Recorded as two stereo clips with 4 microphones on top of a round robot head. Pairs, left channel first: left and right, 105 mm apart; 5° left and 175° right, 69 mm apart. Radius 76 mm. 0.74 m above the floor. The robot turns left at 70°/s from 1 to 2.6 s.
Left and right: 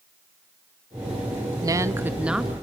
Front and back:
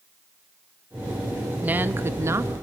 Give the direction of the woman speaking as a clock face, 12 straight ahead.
4 o'clock.